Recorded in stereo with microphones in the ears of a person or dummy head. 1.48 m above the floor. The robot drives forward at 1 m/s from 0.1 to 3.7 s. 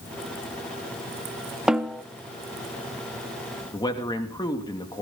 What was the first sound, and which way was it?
A snare drum, centre (ahead or behind).